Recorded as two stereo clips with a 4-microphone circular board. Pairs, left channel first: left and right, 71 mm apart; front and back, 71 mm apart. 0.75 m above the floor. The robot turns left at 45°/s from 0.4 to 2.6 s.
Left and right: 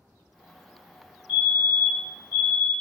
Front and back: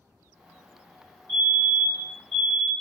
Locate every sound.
1.3 s a fire alarm: 10° right, 1.9 m; by 2.7 s 70° right, 1.9 m